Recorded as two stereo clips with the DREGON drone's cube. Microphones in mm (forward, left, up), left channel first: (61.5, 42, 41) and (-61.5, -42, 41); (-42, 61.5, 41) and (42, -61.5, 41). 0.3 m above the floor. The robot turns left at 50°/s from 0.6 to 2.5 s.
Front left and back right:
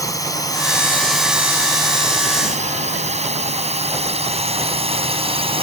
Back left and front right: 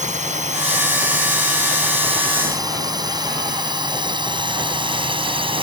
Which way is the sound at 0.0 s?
30° right.